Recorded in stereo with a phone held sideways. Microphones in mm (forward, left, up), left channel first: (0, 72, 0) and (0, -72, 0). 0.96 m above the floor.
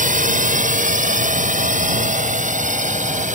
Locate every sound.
0.0 s a drone: 65° right (ahead or behind); by 3.4 s 60° right (ahead or behind)